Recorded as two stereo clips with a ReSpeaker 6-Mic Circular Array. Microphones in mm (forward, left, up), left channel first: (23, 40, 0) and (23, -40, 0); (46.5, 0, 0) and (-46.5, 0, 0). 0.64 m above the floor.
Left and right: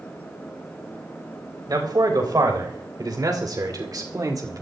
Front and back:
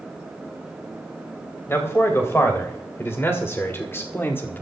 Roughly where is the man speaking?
Ahead right.